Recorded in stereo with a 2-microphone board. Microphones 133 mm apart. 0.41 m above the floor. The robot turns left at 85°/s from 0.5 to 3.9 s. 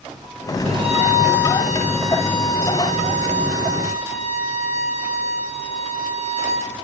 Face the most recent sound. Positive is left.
turn(degrees=55)